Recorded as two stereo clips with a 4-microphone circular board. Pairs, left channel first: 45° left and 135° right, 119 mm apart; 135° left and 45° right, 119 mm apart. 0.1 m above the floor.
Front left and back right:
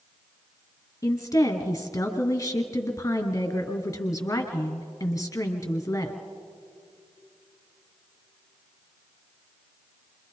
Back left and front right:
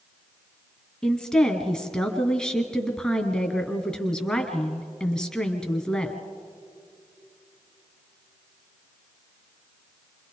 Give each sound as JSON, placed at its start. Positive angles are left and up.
{"t": 1.0, "sound": "a woman speaking", "azimuth_deg": 60, "distance_m": 1.8}